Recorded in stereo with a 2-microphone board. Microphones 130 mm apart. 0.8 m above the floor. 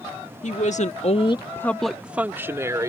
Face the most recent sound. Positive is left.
turn(degrees=-25)  # may be behind; listen again after turning